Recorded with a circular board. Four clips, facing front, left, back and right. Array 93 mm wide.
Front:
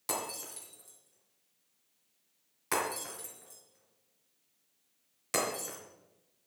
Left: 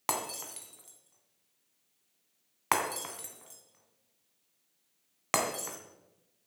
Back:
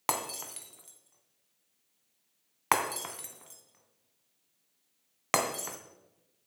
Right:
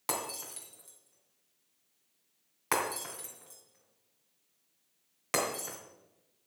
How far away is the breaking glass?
About 2.5 m.